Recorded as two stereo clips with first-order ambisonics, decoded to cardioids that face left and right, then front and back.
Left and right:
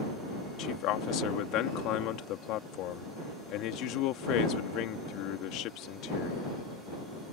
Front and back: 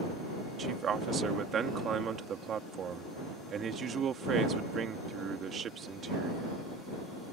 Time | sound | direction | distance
0.6 | a man speaking | 120° left | ?